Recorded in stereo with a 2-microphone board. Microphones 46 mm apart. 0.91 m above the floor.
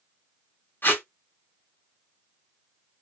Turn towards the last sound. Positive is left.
turn(degrees=45)  # may be behind; listen again after turning